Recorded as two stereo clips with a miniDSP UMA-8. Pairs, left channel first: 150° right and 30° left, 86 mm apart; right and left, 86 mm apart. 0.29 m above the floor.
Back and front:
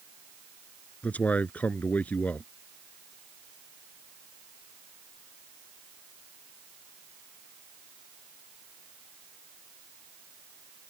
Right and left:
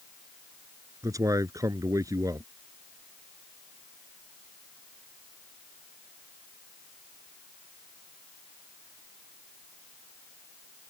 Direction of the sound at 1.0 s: 140° left.